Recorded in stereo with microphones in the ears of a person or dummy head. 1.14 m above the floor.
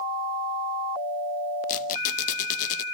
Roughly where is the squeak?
Left.